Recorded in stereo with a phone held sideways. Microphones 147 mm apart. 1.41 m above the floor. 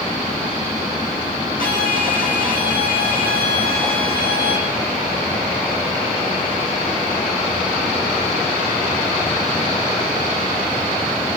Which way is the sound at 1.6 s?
80° left.